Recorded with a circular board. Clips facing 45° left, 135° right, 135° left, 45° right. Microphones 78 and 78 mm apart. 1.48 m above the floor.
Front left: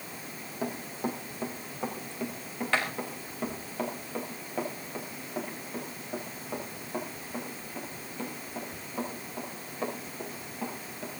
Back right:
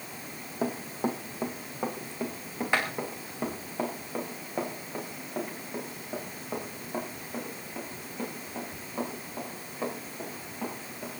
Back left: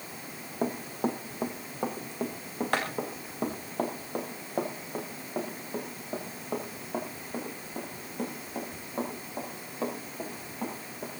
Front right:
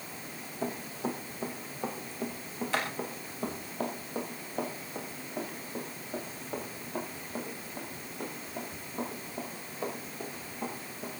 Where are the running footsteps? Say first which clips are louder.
Back right 3 dB, back left 5 dB; 160° left, 3 m; by 11.1 s 145° left, 12 m.